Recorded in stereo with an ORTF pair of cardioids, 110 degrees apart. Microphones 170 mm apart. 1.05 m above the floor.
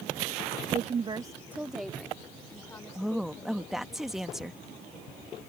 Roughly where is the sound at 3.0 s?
Ahead.